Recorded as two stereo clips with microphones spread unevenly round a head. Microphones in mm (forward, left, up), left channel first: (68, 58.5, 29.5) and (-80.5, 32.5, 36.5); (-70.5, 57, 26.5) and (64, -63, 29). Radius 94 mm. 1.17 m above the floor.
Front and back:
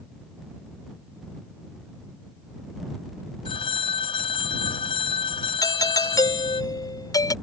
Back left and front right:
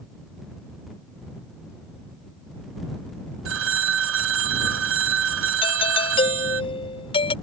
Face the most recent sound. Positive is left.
turn(degrees=75)